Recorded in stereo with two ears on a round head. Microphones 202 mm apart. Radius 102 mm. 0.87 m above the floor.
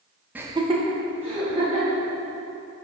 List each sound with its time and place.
0.3 s laughter: 10° right (ahead or behind), 0.7 m; by 2.0 s 25° right (ahead or behind), 2.5 m